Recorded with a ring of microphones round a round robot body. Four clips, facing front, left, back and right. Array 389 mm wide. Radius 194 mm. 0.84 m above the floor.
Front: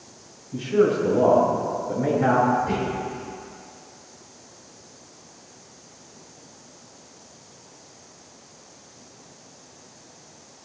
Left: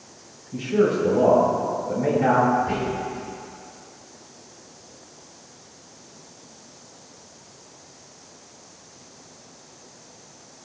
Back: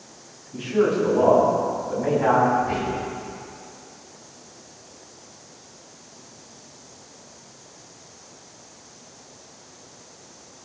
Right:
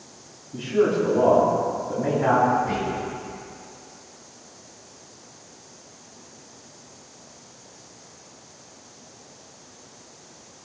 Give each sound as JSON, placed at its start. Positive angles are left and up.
{"t": 0.5, "sound": "a man speaking", "azimuth_deg": 50, "distance_m": 6.5}
{"t": 2.6, "sound": "whispering", "azimuth_deg": 20, "distance_m": 5.5}